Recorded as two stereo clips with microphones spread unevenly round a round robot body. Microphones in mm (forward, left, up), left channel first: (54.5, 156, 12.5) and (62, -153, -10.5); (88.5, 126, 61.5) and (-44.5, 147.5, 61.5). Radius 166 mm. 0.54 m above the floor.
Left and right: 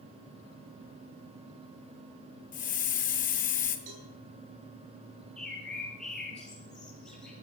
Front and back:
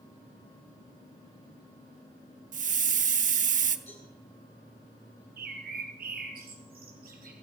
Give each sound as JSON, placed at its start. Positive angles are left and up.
{"t": 2.5, "sound": "a hiss", "azimuth_deg": 160, "distance_m": 0.9}
{"t": 3.9, "sound": "a cowbell", "azimuth_deg": -65, "distance_m": 4.0}
{"t": 5.4, "sound": "a bird", "azimuth_deg": 180, "distance_m": 3.5}